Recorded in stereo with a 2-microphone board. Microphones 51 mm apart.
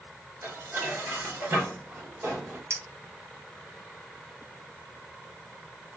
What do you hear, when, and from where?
0.4 s dishes clattering: 55° right (ahead or behind), 1.6 m
2.7 s a clink: 70° right (ahead or behind), 0.9 m